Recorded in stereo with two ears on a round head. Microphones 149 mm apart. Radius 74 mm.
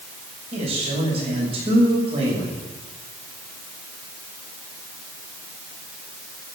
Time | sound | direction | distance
0.5 | a man speaking | 35° right (ahead or behind) | 6 m